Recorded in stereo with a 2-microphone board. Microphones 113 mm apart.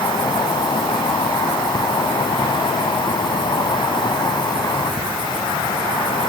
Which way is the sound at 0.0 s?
45° left (ahead or behind).